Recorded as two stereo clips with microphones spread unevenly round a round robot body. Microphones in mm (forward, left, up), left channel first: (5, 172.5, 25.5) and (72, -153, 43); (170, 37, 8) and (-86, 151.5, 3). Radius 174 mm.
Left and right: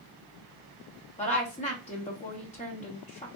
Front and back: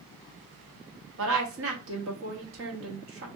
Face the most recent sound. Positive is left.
turn(degrees=160)